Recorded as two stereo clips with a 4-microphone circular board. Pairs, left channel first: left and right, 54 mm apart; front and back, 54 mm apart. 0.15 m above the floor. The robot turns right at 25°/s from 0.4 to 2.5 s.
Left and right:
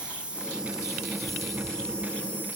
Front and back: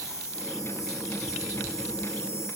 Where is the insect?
20° right, 3.5 m; by 2.6 s 30° left, 3.5 m.